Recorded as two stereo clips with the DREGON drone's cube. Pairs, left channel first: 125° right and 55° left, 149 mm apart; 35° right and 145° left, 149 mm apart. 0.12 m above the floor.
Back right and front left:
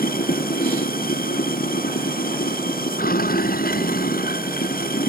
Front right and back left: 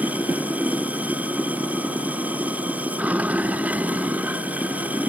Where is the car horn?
I don't hear a car horn.